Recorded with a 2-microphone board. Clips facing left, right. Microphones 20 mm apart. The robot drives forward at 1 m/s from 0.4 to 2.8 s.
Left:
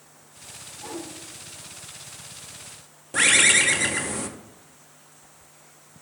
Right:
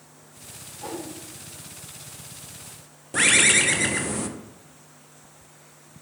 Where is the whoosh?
60° right (ahead or behind), 3 m; by 1.1 s 65° right (ahead or behind), 3 m.